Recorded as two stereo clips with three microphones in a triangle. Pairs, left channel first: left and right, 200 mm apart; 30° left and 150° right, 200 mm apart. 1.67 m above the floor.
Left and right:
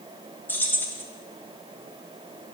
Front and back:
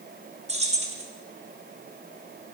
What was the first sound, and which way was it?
Keys jangling, 170° left.